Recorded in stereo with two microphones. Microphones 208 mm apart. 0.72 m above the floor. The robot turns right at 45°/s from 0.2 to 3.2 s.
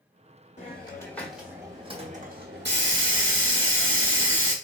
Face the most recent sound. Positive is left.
turn(degrees=-95)